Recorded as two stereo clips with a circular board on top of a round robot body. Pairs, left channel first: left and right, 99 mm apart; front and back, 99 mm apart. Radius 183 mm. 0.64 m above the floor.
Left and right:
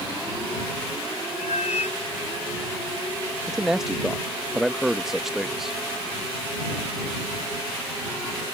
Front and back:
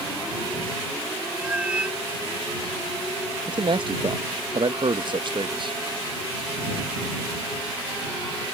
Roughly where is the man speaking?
Behind.